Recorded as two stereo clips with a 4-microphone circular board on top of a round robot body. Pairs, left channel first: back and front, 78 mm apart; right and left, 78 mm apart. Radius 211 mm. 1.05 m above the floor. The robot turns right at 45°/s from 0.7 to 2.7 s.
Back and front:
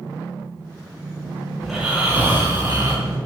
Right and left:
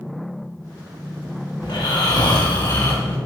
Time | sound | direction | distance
1.6 | snoring | 90° right | 5 m